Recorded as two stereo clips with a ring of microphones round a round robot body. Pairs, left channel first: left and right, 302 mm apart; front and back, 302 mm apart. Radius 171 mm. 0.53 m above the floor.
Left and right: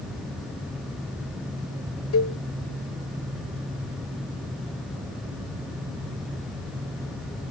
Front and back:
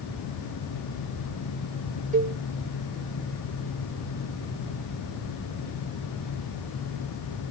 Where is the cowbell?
120° left, 0.8 m.